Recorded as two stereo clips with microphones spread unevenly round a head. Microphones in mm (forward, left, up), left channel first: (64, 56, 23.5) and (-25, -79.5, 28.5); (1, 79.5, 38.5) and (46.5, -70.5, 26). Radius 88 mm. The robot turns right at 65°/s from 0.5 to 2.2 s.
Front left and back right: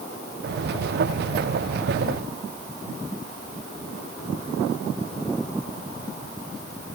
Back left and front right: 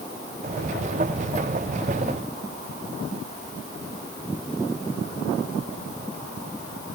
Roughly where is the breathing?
I don't hear breathing.